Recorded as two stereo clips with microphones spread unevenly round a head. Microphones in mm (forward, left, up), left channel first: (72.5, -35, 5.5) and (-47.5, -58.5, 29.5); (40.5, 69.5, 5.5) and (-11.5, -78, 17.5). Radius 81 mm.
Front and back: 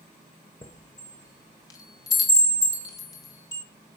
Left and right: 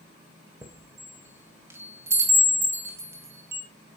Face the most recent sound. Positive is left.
turn(degrees=-50)